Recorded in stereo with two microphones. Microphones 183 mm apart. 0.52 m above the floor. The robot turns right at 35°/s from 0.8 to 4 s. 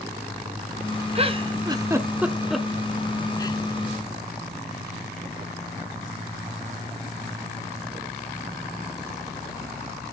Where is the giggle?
35° right (ahead or behind), 0.8 m; by 3.6 s 25° left (ahead or behind), 0.8 m.